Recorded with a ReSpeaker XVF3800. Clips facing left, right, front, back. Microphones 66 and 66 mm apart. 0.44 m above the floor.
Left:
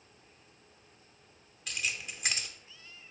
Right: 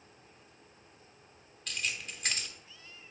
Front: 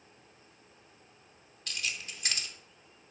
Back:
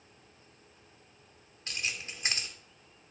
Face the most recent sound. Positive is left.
turn(degrees=170)